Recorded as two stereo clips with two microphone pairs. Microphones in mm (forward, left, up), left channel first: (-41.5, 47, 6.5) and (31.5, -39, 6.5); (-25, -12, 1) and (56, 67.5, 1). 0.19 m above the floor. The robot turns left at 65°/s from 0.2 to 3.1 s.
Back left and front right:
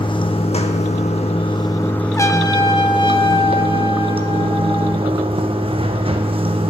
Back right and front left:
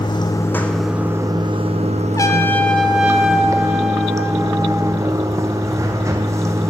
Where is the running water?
170° left, 0.8 m; by 6.7 s 15° right, 0.8 m.